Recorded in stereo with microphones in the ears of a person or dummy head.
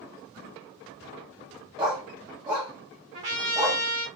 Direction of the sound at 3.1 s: 40° right (ahead or behind).